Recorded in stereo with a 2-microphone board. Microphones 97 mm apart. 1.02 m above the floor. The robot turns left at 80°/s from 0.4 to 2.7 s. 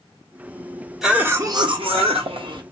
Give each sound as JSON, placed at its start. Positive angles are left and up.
{"t": 1.0, "sound": "a cough", "azimuth_deg": -5, "distance_m": 1.0}